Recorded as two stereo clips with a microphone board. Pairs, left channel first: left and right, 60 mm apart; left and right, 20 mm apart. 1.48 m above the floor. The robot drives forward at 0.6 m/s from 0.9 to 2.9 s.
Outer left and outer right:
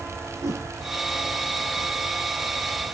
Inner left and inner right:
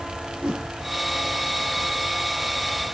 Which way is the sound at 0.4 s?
70° right (ahead or behind).